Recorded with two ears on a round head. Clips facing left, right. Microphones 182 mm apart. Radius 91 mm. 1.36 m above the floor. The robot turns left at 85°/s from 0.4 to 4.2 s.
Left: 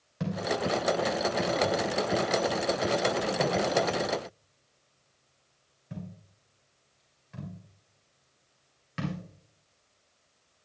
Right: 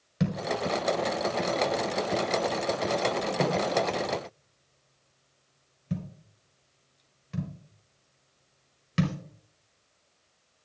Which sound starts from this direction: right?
A thud, at 0.2 s.